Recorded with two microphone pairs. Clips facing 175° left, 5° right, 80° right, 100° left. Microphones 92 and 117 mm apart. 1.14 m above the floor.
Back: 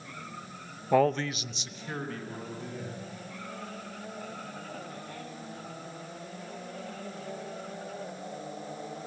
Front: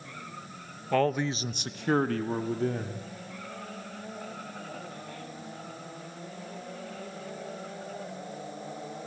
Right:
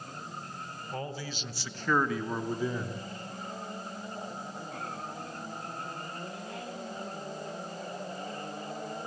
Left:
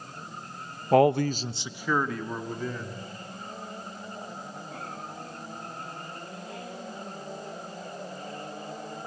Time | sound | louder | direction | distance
0.9 | a man speaking | back 2 dB, left 19 dB | 105° left | 0.8 m